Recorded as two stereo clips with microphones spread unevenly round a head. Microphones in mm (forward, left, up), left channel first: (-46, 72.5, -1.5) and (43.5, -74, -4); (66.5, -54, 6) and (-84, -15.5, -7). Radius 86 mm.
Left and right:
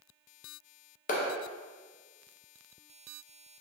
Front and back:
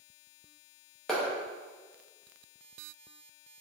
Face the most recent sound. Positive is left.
turn(degrees=75)